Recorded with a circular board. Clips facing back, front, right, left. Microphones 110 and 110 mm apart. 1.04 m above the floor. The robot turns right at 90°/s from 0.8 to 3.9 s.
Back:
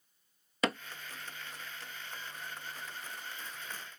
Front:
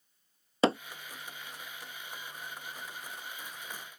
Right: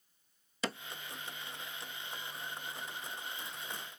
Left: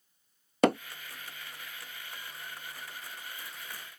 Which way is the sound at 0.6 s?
60° left.